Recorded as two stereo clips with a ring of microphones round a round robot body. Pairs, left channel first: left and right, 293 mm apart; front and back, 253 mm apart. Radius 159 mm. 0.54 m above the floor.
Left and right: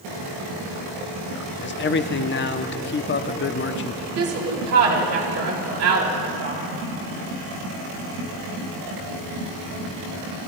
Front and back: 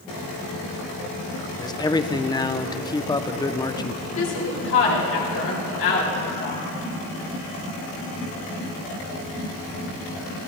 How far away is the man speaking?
About 0.7 m.